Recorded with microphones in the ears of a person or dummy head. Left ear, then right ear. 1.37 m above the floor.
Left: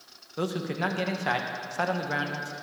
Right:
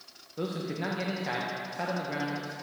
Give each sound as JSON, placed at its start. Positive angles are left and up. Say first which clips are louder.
{"t": 0.4, "sound": "a man speaking", "louder": "left 4 dB", "side_deg": 40, "distance_m": 1.3}